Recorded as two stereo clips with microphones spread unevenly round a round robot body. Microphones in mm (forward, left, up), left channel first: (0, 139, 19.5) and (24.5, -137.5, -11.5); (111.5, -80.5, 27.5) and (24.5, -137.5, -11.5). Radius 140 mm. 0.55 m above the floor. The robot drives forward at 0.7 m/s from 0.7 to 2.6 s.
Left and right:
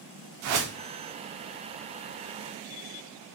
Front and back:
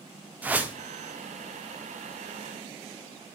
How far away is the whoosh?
About 0.6 m.